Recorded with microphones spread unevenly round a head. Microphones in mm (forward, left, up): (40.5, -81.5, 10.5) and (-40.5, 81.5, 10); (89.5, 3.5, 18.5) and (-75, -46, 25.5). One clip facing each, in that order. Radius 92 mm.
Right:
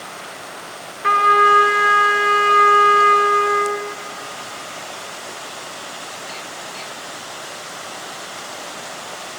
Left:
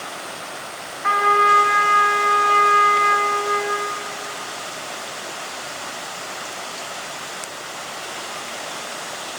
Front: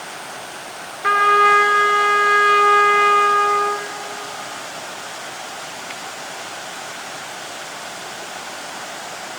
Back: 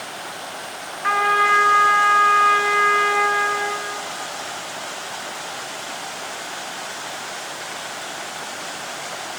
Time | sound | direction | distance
1.0 | a trumpet | 20° right | 2.5 m